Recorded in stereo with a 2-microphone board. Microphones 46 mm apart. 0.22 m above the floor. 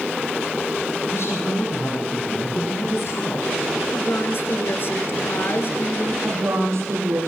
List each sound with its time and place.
1.1 s a woman speaking: 65° left (ahead or behind), 7.5 m
3.9 s a woman speaking: 50° left (ahead or behind), 3 m
6.2 s a woman speaking: 80° right, 7 m